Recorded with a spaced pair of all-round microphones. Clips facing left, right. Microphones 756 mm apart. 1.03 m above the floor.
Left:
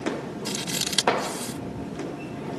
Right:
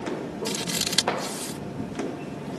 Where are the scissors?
15° right (ahead or behind).